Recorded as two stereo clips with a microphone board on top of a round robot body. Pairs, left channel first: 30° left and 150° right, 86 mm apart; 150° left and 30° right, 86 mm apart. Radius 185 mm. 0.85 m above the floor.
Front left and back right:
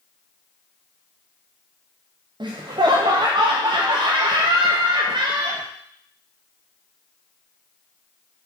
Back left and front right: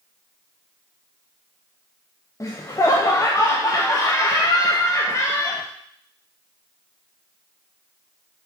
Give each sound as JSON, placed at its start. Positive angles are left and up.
{"t": 2.4, "sound": "laughter", "azimuth_deg": -160, "distance_m": 0.6}